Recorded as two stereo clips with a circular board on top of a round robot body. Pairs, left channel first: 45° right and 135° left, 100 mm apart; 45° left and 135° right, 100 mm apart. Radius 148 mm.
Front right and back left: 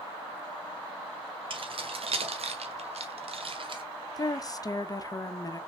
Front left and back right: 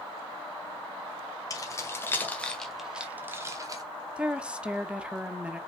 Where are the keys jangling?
100° left, 2 m; by 3.8 s 175° left, 1.8 m.